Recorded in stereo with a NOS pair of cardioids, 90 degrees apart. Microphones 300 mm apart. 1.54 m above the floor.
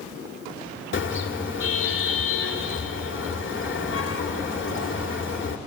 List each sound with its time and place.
0.9 s a car horn: 45° left, 2.5 m